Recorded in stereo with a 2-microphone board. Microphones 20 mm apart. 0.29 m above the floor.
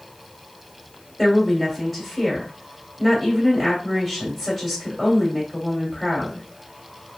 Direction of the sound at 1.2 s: Centre (ahead or behind).